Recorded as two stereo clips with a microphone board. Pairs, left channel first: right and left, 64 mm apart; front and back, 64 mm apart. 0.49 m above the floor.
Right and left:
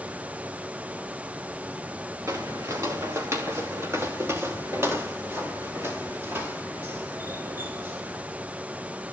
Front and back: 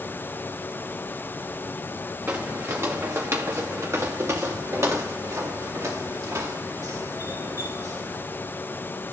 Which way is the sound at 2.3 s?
125° left.